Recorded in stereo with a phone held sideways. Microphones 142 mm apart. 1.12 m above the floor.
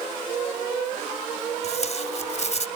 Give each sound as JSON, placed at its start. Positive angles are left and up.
{"t": 1.6, "sound": "tape being pulled", "side_deg": 50}